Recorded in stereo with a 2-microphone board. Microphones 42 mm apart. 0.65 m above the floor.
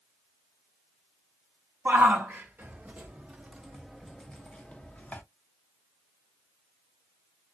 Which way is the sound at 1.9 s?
55° right (ahead or behind).